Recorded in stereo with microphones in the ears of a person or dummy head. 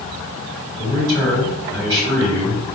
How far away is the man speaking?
About 2.0 m.